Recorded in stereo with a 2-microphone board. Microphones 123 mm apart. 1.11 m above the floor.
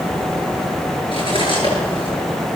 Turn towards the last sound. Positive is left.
turn(degrees=40)  # may be behind; listen again after turning